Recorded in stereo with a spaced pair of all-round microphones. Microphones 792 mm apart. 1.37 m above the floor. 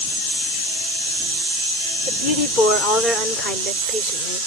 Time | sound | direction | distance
2.1 | a woman speaking | 75° left (ahead or behind) | ?